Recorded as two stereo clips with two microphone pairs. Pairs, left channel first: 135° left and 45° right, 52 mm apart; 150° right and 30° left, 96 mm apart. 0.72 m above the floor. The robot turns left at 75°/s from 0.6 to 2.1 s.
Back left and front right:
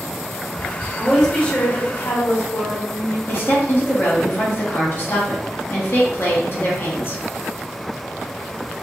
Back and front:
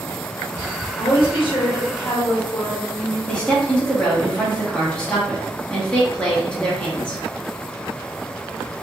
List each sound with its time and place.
1.0 s a woman speaking: 125° right, 1.3 m; by 3.2 s 150° left, 1.3 m
3.3 s a woman speaking: 135° left, 1.3 m